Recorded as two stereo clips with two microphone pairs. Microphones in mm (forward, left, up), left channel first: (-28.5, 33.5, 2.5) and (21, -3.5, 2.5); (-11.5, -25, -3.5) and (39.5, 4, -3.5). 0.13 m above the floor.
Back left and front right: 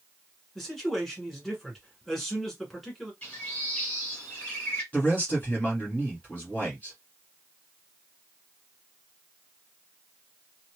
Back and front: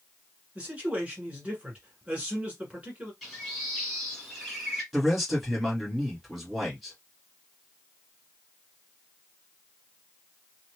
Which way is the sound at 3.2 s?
125° left.